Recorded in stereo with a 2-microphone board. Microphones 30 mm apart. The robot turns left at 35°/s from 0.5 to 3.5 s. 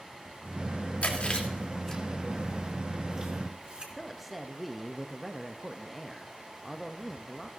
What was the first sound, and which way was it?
Chewing, 50° left (ahead or behind).